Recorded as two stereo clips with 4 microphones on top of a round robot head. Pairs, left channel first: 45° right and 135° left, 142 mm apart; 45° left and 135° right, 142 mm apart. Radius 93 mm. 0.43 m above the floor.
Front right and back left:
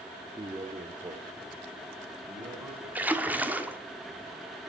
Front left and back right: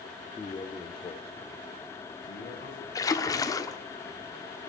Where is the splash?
70° left, 1.4 m.